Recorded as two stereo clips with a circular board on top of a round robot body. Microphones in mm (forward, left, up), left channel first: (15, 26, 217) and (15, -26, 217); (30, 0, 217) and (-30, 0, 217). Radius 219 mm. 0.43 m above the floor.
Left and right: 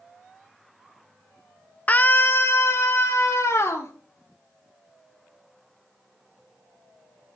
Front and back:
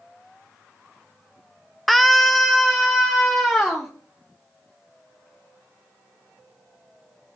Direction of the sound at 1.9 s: 85° left.